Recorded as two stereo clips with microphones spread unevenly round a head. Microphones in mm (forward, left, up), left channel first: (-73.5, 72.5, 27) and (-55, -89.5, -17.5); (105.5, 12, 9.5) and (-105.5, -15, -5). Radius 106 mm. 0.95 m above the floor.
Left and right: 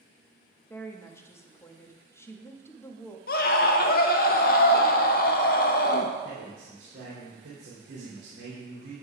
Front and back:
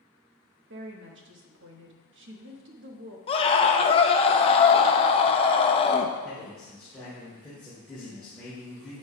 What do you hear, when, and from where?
0.7 s a woman speaking: straight behind, 1.2 m
3.3 s a scream: 65° left, 0.8 m
6.2 s a man speaking: 80° right, 3 m